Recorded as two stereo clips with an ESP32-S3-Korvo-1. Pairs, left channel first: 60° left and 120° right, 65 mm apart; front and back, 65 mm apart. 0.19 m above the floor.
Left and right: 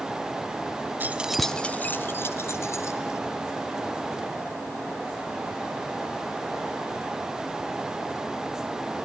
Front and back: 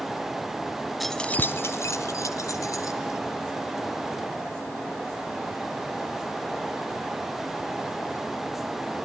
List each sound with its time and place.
1.0 s keys jangling: 90° right, 0.8 m; by 3.2 s 25° left, 2.5 m